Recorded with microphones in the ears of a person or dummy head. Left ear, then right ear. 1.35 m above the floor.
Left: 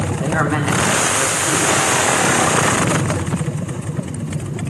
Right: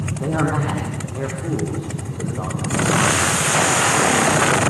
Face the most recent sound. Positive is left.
turn(degrees=60)  # may be behind; listen again after turning